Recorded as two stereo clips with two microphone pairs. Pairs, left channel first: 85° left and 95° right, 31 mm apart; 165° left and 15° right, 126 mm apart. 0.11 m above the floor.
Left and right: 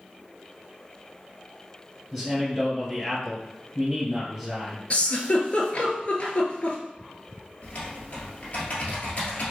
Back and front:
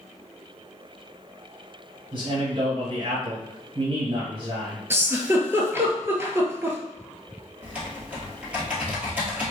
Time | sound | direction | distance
2.1 | a man speaking | straight ahead | 1.8 m
4.9 | a giggle | 55° left | 0.6 m
7.6 | typing on a keyboard | 60° left | 1.2 m